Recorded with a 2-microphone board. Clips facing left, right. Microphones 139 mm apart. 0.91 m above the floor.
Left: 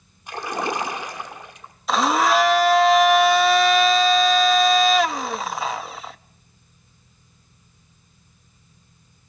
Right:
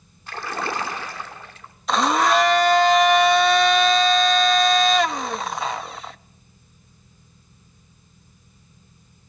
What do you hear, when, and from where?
0.3 s a splash: 15° left (ahead or behind), 1.8 m
1.9 s a blender: centre (ahead or behind), 0.5 m